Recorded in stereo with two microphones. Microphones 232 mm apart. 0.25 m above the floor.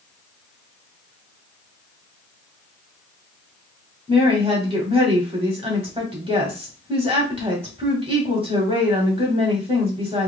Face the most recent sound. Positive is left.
turn(degrees=-25)  # may be behind; listen again after turning